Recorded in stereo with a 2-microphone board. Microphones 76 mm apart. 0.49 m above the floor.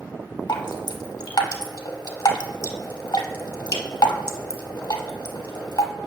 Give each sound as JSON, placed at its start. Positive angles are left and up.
{"t": 0.5, "sound": "dripping", "side_deg": 65, "distance_m": 0.8}